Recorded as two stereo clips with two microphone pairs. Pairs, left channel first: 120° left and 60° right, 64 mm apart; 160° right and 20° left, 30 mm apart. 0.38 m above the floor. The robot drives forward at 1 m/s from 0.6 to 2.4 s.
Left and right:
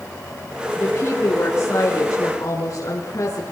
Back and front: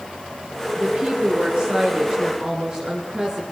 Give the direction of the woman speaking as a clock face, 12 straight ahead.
10 o'clock.